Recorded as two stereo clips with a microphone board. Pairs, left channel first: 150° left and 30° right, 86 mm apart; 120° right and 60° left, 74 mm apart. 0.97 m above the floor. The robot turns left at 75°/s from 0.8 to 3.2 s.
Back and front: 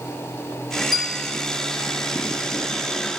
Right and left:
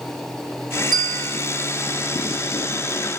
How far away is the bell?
About 3 m.